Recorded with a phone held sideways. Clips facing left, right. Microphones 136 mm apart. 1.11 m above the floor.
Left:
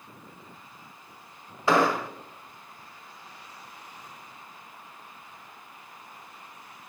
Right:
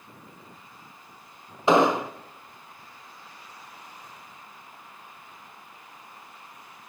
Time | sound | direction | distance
1.7 | an explosion | 20° right (ahead or behind) | 0.6 m